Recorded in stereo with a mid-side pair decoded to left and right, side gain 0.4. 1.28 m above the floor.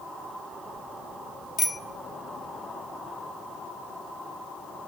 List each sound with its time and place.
1.6 s a bicycle bell: 55° left, 2 m